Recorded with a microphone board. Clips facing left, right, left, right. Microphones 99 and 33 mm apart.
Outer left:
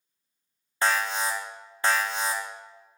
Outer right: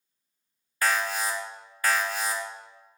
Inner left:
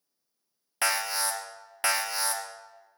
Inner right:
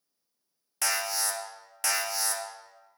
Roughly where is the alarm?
Left.